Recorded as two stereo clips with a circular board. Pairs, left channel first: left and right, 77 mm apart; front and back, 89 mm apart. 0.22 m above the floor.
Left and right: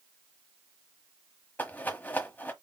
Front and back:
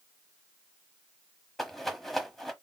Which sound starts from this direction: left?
A rattle, at 1.6 s.